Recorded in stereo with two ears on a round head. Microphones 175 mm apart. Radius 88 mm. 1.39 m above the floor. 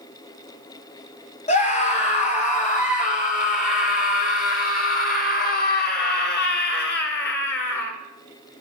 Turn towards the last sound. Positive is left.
turn(degrees=65)  # may be behind; listen again after turning